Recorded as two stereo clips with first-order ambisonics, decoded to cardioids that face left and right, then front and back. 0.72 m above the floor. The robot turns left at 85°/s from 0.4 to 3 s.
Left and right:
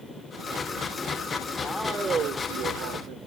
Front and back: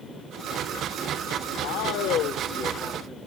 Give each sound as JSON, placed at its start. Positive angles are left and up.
{"t": 1.6, "sound": "a man speaking", "azimuth_deg": 15, "distance_m": 1.9}